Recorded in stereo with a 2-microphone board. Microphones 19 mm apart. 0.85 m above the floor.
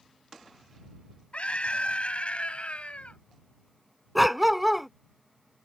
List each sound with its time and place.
1.3 s a scream: 75° left (ahead or behind); by 3.2 s 80° left
4.2 s a dog barking: 5° right (ahead or behind)